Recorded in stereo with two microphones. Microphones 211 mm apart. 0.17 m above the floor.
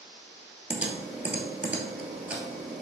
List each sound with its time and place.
0.7 s typing on a keyboard: 5° right (ahead or behind), 0.7 m